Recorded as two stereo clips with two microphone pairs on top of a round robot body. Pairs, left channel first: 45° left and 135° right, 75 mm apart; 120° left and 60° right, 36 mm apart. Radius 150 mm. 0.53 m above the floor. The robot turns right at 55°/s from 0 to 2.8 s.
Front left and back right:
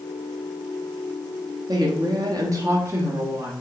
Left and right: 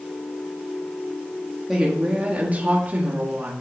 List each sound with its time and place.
1.7 s a woman speaking: 150° right, 1.5 m; by 3.5 s 90° right, 1.5 m